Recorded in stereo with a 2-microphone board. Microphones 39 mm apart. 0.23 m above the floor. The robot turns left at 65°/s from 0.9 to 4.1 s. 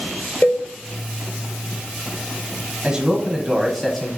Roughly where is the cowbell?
Left.